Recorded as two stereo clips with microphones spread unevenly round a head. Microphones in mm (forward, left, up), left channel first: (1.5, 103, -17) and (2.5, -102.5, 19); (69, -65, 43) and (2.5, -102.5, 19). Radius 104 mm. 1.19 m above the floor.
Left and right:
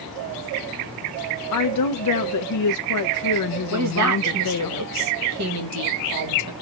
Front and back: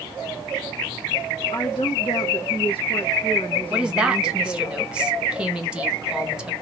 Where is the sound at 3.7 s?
75° right, 1.5 m.